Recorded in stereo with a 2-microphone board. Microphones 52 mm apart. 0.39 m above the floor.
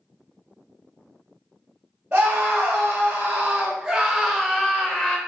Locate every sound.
2.1 s a scream: 30° right (ahead or behind), 1.7 m; by 5.2 s 20° left (ahead or behind), 1.2 m